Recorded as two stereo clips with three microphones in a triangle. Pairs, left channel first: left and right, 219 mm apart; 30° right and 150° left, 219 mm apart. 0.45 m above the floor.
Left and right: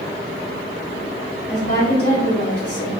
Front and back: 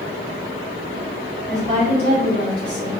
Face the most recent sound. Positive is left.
turn(degrees=120)